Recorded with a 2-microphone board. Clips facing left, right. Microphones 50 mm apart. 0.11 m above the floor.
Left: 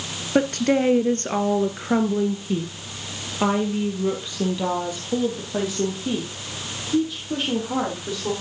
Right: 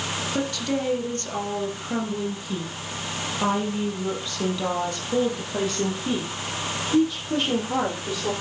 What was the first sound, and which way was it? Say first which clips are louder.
A woman speaking: left 9 dB; 45° left (ahead or behind).